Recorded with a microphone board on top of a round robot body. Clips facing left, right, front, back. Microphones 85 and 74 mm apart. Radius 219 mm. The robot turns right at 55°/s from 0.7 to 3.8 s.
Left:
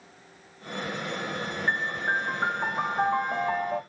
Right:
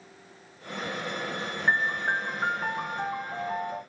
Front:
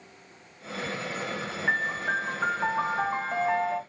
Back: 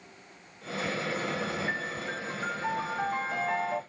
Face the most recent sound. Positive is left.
turn(degrees=90)